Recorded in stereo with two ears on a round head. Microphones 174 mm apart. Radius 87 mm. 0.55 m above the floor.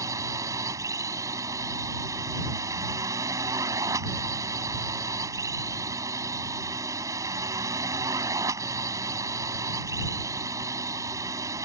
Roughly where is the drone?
Centre.